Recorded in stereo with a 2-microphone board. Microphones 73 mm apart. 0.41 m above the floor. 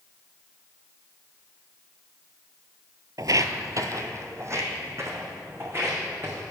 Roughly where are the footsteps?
Right.